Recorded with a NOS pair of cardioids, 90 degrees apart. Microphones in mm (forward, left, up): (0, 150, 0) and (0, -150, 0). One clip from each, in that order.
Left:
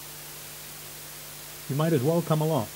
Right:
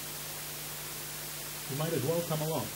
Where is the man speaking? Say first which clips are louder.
Left 7 dB; 55° left, 0.7 m.